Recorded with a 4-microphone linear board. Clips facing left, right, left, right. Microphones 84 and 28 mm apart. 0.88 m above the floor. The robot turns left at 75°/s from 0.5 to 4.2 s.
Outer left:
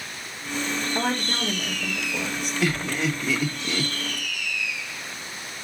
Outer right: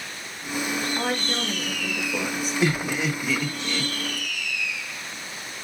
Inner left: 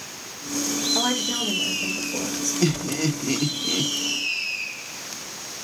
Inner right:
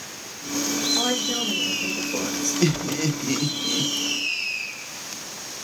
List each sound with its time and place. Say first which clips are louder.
0.9 s a woman speaking: outer left 1 dB, even; 65° left, 3 m; by 2.5 s 50° right, 3 m
2.6 s laughter: outer right 1 dB, even; 20° right (ahead or behind), 0.6 m; by 3.9 s 20° left (ahead or behind), 0.6 m